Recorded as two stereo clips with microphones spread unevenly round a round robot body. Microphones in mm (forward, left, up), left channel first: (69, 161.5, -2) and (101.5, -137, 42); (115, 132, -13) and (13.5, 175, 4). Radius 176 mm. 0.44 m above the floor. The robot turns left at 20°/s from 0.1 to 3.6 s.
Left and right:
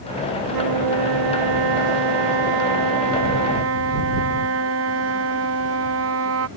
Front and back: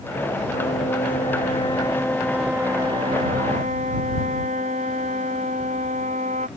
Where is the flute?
75° right; by 6.5 s 140° right.